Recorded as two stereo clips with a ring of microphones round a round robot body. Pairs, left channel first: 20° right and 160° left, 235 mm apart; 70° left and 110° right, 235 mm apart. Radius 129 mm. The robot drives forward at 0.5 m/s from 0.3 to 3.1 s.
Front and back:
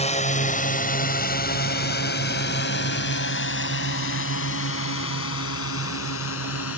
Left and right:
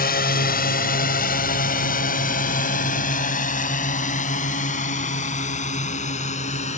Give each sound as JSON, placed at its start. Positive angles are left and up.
{"t": 0.0, "sound": "a drone", "azimuth_deg": 30}